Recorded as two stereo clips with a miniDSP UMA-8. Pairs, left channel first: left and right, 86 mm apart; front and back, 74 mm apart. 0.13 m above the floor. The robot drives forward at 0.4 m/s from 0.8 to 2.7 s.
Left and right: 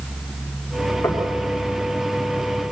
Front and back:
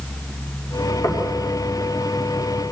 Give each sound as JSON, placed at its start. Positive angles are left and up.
{"t": 1.0, "sound": "knocking", "azimuth_deg": 25, "distance_m": 6.5}